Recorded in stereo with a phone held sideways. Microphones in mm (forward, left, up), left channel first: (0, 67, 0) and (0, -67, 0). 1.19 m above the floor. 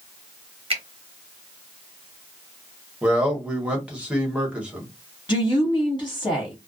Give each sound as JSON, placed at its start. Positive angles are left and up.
{"t": 0.7, "sound": "a finger snap", "side_deg": -45, "distance_m": 0.9}
{"t": 3.0, "sound": "a man speaking", "side_deg": -10, "distance_m": 1.1}
{"t": 5.3, "sound": "a woman speaking", "side_deg": 25, "distance_m": 0.9}